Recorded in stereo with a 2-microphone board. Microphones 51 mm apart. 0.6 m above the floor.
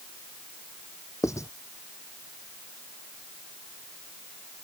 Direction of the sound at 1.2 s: 75° left (ahead or behind).